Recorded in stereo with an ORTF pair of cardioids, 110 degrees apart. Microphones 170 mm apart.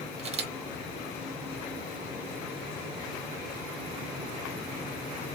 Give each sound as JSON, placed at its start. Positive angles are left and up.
{"t": 0.2, "sound": "a camera shutter", "azimuth_deg": -40, "distance_m": 1.1}